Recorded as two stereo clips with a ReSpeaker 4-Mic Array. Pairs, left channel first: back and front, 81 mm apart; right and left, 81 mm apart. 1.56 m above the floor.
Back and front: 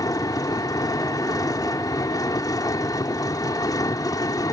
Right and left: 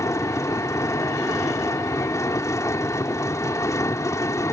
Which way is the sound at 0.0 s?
140° right.